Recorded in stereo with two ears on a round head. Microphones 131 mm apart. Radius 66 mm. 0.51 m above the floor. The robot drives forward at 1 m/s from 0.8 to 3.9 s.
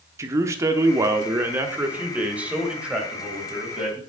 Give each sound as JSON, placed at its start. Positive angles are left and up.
{"t": 0.2, "sound": "a man speaking", "side_deg": -20, "distance_m": 0.9}